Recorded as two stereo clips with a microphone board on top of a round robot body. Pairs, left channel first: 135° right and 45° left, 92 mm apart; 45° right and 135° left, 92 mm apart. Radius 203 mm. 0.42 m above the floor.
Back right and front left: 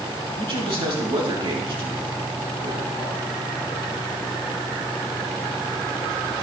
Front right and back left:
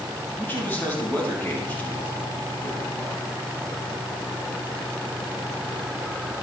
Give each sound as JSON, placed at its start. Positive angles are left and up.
{"t": 0.4, "sound": "a man speaking", "azimuth_deg": 20, "distance_m": 5.0}